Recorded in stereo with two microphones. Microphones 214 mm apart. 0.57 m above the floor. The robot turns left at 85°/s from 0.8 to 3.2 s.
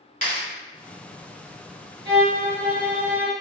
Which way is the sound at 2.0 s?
75° right.